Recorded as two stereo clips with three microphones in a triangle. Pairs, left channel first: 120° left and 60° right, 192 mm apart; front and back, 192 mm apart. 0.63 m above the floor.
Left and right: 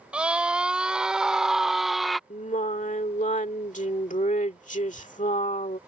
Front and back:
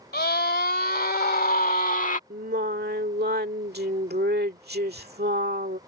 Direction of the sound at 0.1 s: 25° left.